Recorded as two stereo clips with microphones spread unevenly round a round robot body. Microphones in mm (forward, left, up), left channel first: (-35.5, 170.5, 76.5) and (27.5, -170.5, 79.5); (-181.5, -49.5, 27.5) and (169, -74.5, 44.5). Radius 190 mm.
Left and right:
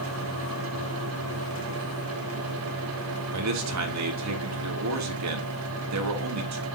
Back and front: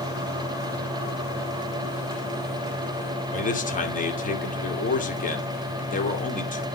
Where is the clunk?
No clunk in this recording.